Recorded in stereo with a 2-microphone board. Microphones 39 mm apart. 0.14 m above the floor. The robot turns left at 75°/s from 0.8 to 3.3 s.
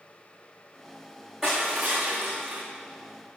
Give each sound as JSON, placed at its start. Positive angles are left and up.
{"t": 1.4, "sound": "crushing", "azimuth_deg": -15, "distance_m": 5.0}